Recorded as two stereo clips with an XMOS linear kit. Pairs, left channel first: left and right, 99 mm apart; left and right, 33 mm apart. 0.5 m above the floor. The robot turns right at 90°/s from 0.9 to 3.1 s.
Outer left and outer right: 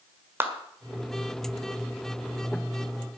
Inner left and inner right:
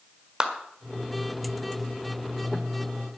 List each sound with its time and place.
0.4 s a clap: 20° right (ahead or behind), 1.6 m